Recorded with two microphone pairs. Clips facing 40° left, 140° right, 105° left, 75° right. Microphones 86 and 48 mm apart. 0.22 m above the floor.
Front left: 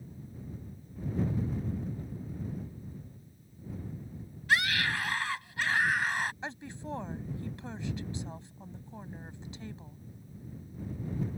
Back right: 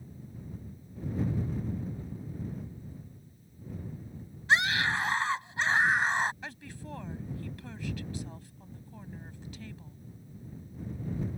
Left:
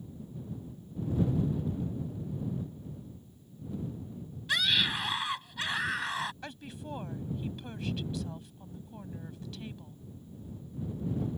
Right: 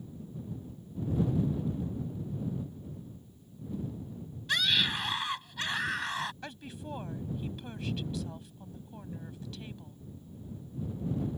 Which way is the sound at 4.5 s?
170° right.